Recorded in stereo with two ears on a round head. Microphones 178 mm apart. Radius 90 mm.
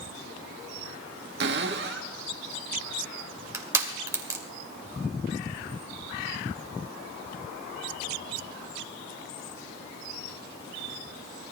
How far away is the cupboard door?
About 1.4 m.